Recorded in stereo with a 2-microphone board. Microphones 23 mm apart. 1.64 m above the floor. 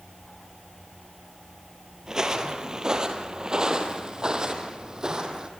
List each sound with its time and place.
2.1 s footsteps: 25° right (ahead or behind), 1.9 m; by 5.5 s 30° right (ahead or behind), 3 m